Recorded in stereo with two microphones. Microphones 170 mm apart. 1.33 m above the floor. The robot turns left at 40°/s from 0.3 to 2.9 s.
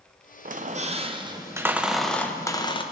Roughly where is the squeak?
Behind right.